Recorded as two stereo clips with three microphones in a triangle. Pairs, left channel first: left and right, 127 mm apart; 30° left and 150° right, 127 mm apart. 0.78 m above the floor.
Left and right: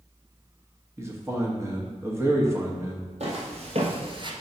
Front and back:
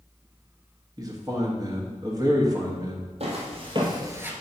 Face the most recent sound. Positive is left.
turn(degrees=-80)